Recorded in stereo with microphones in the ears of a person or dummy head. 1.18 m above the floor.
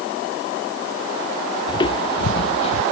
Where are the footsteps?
25° left (ahead or behind); by 2.8 s 35° left (ahead or behind).